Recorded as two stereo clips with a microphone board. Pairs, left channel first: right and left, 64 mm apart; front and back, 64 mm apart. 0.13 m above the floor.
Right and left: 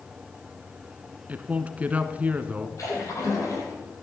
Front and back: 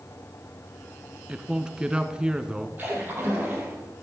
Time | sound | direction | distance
1.3 | a man speaking | 120° left | 1.1 m
2.8 | a splash | 120° right | 5.5 m